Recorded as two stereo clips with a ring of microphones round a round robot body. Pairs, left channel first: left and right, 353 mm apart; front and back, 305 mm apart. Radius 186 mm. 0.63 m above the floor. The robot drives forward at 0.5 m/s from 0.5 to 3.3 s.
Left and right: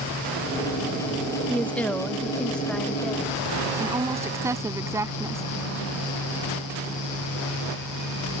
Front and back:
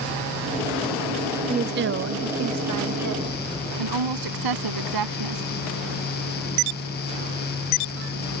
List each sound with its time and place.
1.5 s a woman speaking: 170° left; by 3.4 s straight behind
3.8 s a woman speaking: 170° right